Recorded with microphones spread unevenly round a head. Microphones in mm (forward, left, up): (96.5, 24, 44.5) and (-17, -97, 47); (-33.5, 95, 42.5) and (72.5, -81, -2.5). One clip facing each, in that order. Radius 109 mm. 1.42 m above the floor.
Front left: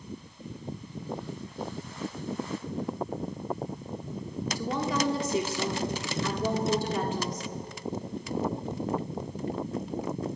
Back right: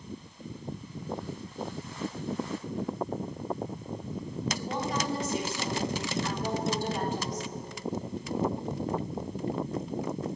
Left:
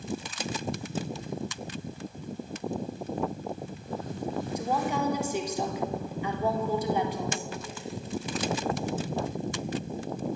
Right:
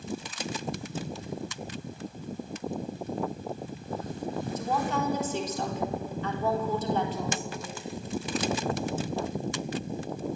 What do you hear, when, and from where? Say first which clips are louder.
4.5 s a woman speaking: front left 5 dB, left 1 dB; 45° left, 3.5 m